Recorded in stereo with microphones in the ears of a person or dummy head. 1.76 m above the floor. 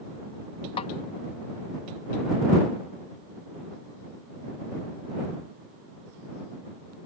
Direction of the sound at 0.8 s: 40° left (ahead or behind).